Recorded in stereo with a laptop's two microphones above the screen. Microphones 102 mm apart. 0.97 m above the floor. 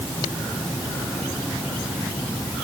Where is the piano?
No piano in this recording.